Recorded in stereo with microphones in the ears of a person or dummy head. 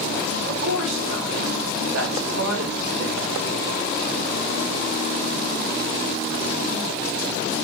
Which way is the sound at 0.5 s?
90° right.